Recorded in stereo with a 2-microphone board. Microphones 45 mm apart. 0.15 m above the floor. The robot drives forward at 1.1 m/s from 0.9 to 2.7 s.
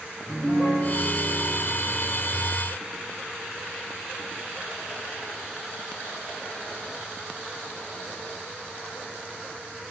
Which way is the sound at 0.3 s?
25° left (ahead or behind).